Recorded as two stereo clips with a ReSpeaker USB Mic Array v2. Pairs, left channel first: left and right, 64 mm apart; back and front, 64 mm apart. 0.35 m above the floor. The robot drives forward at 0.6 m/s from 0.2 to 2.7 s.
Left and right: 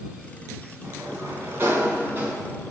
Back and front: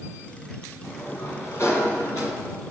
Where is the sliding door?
135° right, 2.5 m; by 2.5 s 145° right, 3.5 m.